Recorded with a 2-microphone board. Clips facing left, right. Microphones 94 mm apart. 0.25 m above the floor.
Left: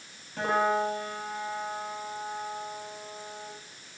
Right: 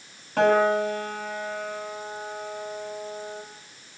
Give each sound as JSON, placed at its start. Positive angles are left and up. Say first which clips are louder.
{"t": 0.4, "sound": "a piano", "louder": "right 6 dB", "side_deg": -80, "distance_m": 7.0}